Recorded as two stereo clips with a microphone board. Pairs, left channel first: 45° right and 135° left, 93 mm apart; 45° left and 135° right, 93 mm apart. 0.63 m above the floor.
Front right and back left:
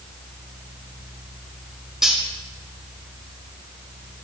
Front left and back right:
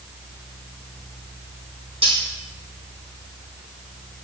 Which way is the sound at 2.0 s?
140° right.